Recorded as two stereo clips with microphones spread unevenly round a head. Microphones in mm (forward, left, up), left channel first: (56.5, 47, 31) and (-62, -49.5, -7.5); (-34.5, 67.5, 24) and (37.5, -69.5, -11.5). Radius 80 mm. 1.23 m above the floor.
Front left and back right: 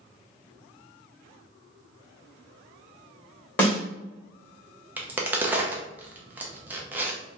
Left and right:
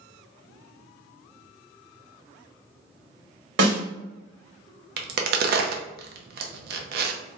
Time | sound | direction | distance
3.6 | a snare drum | 35° right | 1.9 m
5.0 | a crack | 50° right | 0.5 m